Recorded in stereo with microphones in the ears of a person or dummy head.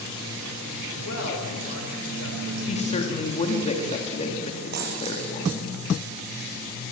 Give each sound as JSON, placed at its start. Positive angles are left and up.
{"t": 1.0, "sound": "a woman speaking", "side_deg": 70, "distance_m": 6.5}
{"t": 2.7, "sound": "a woman speaking", "side_deg": 35, "distance_m": 3.5}
{"t": 4.7, "sound": "a dropped coin", "side_deg": -50, "distance_m": 5.5}